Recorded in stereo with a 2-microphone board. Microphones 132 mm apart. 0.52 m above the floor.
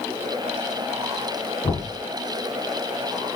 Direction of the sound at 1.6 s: 40° left (ahead or behind).